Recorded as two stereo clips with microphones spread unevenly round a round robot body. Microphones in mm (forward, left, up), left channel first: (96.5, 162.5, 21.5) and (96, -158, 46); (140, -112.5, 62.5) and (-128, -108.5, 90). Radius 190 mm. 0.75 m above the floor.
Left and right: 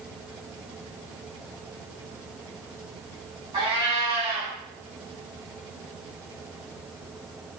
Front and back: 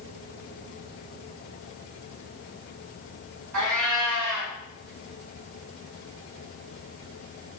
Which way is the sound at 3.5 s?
170° right.